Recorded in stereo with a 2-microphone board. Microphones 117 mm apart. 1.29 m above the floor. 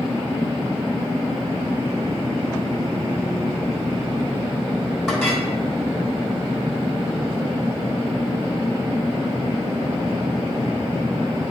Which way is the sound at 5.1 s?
Centre (ahead or behind).